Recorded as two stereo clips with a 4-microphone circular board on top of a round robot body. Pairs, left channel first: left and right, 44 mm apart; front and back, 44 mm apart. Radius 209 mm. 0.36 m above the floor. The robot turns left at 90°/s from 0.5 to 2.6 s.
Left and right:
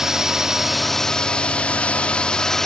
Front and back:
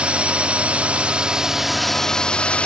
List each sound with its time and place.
0.0 s a drone: 160° right; by 2.7 s 20° left